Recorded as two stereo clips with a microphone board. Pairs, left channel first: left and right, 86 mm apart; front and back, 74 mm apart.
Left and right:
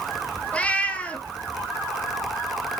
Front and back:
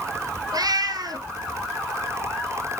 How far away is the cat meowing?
About 1.4 m.